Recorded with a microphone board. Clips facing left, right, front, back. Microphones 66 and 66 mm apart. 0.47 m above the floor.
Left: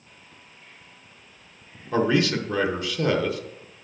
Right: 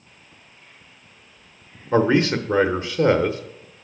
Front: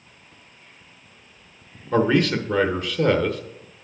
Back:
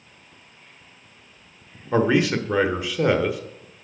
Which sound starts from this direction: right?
A man speaking, at 1.9 s.